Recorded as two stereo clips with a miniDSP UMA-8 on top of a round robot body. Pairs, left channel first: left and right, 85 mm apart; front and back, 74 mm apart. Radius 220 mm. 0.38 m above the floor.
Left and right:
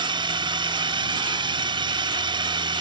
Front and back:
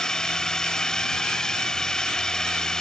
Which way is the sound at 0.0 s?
80° right.